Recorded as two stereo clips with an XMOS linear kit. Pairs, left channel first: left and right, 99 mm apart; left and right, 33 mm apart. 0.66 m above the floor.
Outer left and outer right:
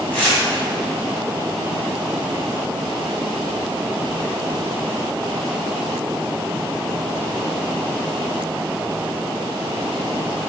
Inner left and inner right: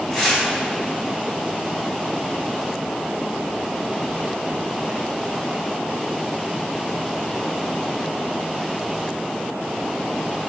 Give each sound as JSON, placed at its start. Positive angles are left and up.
{"t": 0.1, "sound": "tearing paper", "side_deg": 10, "distance_m": 3.0}